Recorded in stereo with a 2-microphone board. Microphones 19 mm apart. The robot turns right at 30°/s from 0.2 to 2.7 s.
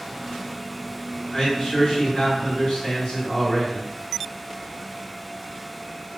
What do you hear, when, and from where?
1.3 s a man speaking: 50° left, 1.6 m; by 3.9 s 90° left, 1.6 m